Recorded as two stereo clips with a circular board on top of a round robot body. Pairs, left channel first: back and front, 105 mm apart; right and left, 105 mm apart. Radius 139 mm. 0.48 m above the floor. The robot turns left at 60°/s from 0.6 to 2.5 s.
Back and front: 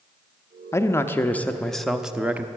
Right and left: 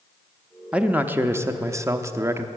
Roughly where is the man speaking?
Behind.